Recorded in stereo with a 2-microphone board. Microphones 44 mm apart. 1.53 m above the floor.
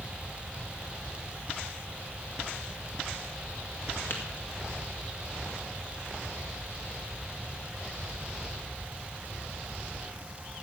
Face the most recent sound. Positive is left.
turn(degrees=55)  # may be behind; listen again after turning